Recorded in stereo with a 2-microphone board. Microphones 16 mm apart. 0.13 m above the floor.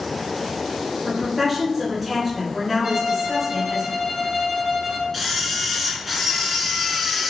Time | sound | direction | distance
1.1 | a woman speaking | 15° right (ahead or behind) | 1.4 m
2.8 | a violin | 35° right (ahead or behind) | 1.7 m
5.1 | a camera shutter | centre (ahead or behind) | 0.8 m